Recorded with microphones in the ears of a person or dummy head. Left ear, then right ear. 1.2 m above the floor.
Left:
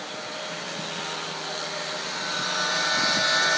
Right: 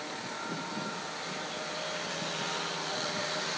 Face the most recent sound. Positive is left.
No sound to turn to.